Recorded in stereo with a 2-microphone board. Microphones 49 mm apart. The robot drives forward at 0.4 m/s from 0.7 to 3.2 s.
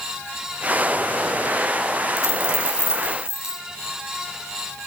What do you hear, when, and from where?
2.2 s a dropped coin: 80° left, 1.6 m; by 3.6 s 65° left (ahead or behind), 1.8 m